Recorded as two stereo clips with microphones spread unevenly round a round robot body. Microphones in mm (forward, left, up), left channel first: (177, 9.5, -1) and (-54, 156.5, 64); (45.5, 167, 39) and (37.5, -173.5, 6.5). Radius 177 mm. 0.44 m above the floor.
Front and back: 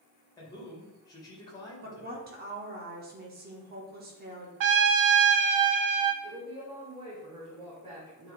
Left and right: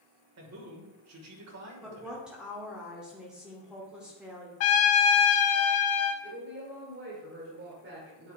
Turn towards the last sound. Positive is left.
turn(degrees=-130)